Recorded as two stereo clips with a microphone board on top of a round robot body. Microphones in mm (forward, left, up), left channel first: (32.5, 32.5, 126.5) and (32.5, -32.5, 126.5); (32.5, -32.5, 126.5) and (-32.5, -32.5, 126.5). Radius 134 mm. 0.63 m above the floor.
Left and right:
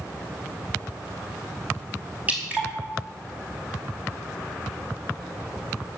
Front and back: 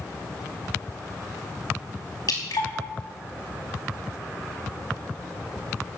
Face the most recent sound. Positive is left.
turn(degrees=-20)